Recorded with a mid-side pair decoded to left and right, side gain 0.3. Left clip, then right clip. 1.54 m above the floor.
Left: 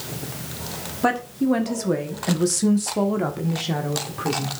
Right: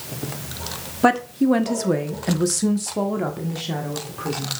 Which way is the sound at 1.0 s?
45° right.